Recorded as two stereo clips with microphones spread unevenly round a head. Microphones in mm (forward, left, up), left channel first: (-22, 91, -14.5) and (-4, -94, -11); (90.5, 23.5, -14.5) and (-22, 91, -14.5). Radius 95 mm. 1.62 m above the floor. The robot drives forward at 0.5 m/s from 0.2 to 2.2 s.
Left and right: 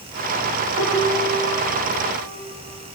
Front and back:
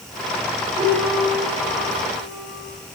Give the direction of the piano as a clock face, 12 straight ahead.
6 o'clock.